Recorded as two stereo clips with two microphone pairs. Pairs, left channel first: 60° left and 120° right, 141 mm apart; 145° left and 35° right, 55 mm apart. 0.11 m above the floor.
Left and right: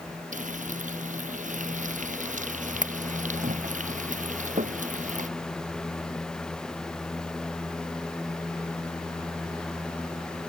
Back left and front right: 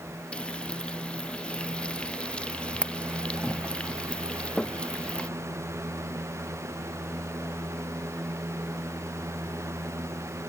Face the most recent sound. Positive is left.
turn(degrees=-145)